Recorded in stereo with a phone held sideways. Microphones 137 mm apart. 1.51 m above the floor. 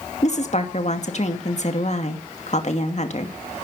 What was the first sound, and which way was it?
A woman speaking, 55° left (ahead or behind).